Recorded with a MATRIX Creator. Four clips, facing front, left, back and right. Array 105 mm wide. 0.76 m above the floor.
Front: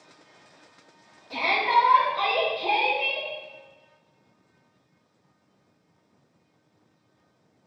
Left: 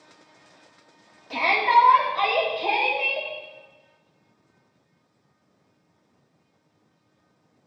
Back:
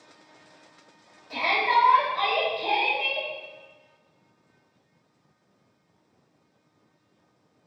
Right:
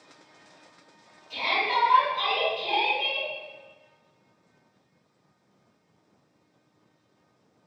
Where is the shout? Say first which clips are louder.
Left 8 dB, front 1 dB; 100° left, 5 m.